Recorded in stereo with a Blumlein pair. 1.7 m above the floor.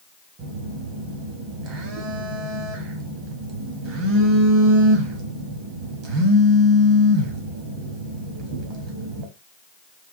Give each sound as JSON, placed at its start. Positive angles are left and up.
{"t": 0.4, "sound": "a phone buzzing", "azimuth_deg": -35, "distance_m": 1.0}